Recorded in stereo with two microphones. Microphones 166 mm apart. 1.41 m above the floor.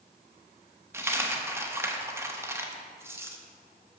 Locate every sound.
0.9 s a dropped coin: 15° right (ahead or behind), 0.7 m